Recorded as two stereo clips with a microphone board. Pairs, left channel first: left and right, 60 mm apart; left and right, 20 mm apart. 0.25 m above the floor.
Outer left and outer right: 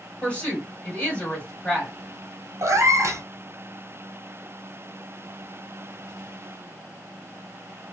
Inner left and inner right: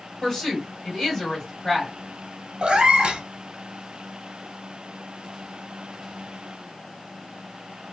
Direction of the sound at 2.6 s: 60° right (ahead or behind).